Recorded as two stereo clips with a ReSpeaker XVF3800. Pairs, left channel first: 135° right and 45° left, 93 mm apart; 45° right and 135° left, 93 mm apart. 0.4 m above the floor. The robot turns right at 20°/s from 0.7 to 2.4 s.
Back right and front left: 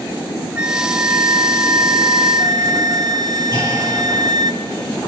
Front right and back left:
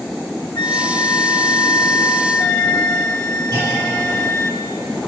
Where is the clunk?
170° right, 8 m.